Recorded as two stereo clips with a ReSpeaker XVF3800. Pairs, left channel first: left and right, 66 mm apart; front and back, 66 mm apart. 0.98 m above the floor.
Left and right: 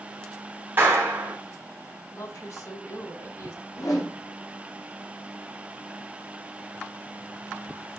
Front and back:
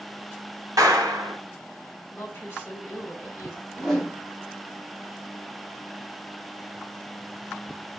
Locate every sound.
0.8 s a clap: 150° right, 2.5 m
2.1 s a woman speaking: 60° left, 4 m
3.7 s a whoosh: 85° left, 2.5 m